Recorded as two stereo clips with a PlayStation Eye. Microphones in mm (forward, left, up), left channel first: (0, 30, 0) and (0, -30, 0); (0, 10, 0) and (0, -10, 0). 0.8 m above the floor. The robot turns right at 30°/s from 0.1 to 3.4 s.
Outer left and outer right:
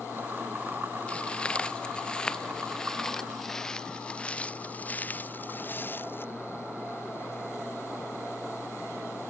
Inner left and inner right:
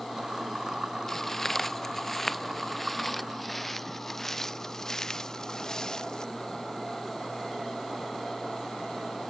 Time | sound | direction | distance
1.1 | footsteps | 20° left (ahead or behind) | ?